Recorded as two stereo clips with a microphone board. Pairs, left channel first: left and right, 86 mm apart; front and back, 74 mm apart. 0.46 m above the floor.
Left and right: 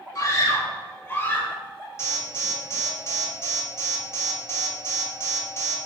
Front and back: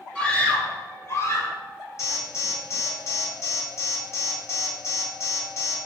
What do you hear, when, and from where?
0.1 s a scream: 70° left, 1.6 m; by 1.6 s 30° left, 2 m
2.0 s an alarm: 40° left, 2.5 m